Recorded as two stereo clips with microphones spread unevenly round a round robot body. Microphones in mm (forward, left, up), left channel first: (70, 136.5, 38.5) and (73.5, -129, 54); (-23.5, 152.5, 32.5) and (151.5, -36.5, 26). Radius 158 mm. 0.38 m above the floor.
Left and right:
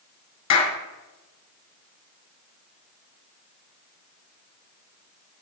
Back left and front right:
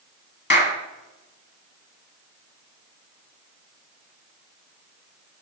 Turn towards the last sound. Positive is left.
turn(degrees=85)